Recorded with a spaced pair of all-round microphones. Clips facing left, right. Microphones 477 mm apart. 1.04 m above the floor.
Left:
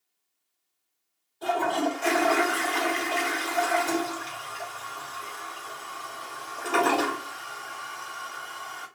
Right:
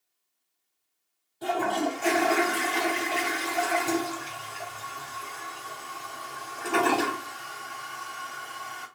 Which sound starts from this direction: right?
A toilet flushing, at 1.4 s.